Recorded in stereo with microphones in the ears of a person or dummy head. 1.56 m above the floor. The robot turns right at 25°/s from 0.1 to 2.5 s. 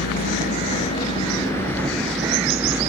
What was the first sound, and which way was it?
A vehicle, 130° left.